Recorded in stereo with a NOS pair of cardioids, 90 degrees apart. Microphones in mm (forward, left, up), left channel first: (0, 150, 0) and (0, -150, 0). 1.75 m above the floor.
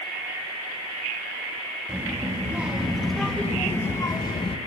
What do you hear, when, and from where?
1.9 s a child speaking: 10° right, 2.5 m; by 4.6 s 25° left, 1.4 m